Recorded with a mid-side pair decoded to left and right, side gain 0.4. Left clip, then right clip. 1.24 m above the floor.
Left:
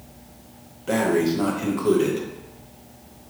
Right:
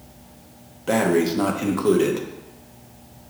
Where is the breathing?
35° right, 0.7 m.